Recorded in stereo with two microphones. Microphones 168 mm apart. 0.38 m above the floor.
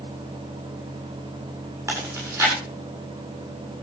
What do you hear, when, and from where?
1.9 s chewing: 15° right (ahead or behind), 8 m